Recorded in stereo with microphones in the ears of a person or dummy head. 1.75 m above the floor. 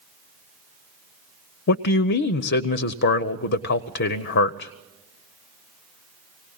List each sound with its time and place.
1.7 s a man speaking: 50° left (ahead or behind), 0.6 m